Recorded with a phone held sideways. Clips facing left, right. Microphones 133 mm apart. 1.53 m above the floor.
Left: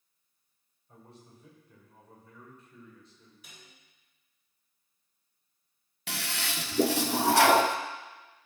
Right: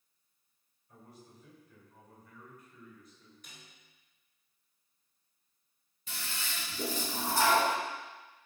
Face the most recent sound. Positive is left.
turn(degrees=75)  # may be behind; listen again after turning